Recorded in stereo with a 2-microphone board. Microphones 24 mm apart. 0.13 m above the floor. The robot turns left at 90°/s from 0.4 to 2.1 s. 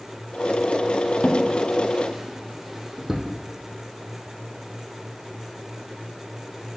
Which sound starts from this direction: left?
A drawer, at 1.2 s.